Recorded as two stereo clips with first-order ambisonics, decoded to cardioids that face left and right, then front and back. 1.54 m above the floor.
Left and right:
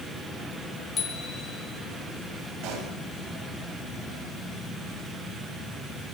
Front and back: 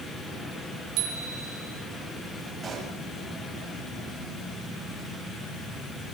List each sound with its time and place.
1.0 s a bicycle bell: 160° left, 5 m
2.6 s a pop: 115° right, 8 m